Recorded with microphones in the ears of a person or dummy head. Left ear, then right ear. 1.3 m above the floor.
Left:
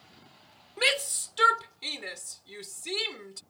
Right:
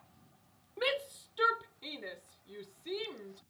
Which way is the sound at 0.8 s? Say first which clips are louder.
Left 8 dB; 60° left (ahead or behind).